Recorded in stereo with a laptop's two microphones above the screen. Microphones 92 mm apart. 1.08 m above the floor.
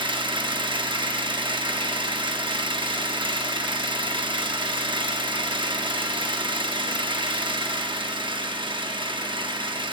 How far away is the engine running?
About 0.9 m.